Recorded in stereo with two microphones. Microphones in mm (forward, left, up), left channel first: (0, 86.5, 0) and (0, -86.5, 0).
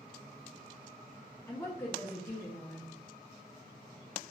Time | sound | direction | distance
1.5 | a woman speaking | 15° left (ahead or behind) | 0.6 m